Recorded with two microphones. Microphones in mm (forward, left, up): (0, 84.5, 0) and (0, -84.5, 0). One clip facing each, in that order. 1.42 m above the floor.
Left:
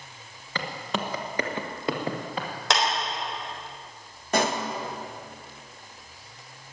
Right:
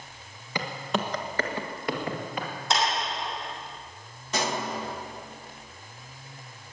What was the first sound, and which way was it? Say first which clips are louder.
Footsteps: right 1 dB; 15° right (ahead or behind).